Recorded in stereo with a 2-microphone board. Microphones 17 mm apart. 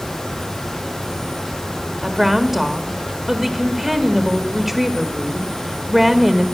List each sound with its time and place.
2.0 s a woman speaking: 10° right (ahead or behind), 1.5 m